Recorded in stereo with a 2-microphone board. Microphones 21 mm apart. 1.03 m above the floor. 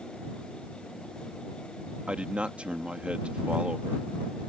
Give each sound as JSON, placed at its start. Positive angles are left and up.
{"t": 2.1, "sound": "a man speaking", "side_deg": -65}